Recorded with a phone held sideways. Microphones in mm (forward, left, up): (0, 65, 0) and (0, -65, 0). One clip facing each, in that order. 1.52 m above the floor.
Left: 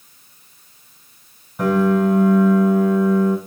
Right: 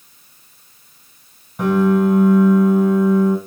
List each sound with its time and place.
1.6 s a piano: centre (ahead or behind), 4 m